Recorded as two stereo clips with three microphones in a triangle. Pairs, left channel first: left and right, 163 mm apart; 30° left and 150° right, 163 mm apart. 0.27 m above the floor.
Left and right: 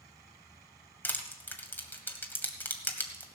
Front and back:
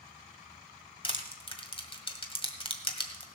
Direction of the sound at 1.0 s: 20° left.